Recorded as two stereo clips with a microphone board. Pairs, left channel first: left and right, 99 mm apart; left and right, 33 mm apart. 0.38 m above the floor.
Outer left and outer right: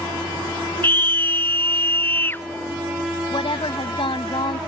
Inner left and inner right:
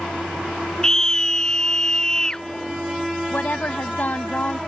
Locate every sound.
0.8 s a scream: 20° left (ahead or behind)
3.3 s a woman speaking: 65° left (ahead or behind)